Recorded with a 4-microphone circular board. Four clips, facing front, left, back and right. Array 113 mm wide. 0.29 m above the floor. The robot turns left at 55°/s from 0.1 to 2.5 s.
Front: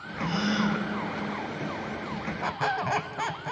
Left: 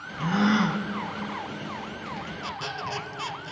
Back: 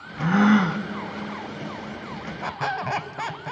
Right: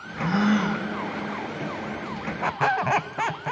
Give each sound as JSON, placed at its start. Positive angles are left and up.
{"t": 0.2, "sound": "a gasp", "azimuth_deg": -170, "distance_m": 0.8}
{"t": 2.4, "sound": "a squeak", "azimuth_deg": -90, "distance_m": 0.5}